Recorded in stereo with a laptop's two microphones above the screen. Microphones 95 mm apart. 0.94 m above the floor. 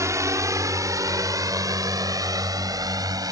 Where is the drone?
30° right (ahead or behind); by 3.3 s 40° right (ahead or behind).